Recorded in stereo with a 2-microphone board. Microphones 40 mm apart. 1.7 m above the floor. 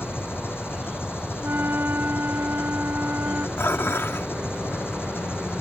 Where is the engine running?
65° left (ahead or behind).